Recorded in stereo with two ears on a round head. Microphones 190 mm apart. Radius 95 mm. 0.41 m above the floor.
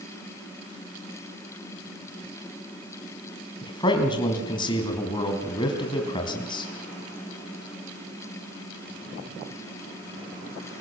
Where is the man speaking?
25° left (ahead or behind), 3.5 m.